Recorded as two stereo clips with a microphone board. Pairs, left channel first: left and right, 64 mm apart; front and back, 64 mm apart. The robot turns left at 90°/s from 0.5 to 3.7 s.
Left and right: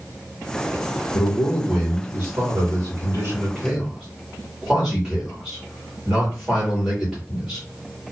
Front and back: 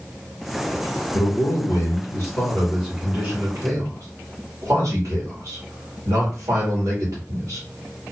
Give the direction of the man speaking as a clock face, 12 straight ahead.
10 o'clock.